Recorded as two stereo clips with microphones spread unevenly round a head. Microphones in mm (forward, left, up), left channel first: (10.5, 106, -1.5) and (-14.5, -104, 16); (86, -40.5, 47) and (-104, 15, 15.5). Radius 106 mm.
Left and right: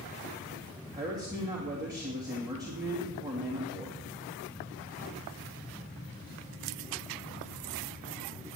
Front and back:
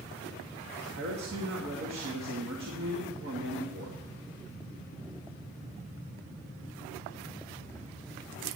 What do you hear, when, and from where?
0.9 s a man speaking: 170° right, 2.5 m